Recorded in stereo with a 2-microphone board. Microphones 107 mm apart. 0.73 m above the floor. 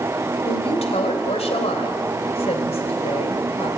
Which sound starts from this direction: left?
A woman speaking, at 0.4 s.